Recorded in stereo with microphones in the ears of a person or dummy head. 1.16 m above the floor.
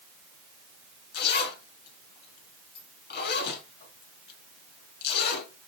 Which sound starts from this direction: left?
A zipper, at 1.1 s.